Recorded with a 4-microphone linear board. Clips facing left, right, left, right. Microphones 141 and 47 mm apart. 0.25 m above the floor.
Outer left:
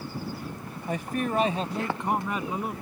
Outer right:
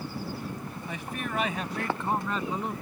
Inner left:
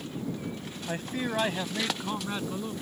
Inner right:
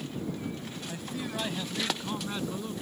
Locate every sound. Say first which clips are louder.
0.9 s a man speaking: outer left 8 dB, inner left 6 dB; 45° left (ahead or behind); by 2.7 s 5° left (ahead or behind)